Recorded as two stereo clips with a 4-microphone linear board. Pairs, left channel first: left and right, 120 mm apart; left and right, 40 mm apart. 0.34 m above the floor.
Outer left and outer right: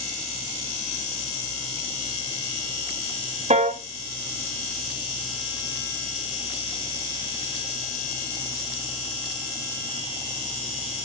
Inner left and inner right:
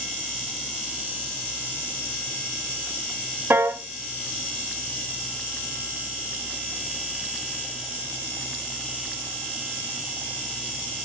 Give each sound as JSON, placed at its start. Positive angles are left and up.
{"t": 3.5, "sound": "a piano", "side_deg": -70, "distance_m": 0.7}